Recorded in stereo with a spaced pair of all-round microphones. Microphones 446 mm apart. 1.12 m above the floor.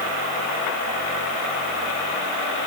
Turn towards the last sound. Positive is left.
No sound to turn to.